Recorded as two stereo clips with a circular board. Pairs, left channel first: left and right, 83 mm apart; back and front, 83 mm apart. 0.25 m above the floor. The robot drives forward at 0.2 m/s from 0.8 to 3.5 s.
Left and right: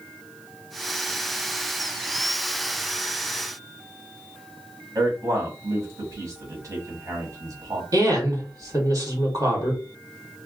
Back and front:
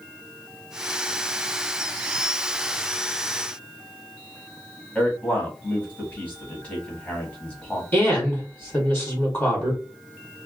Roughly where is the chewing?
No chewing in this recording.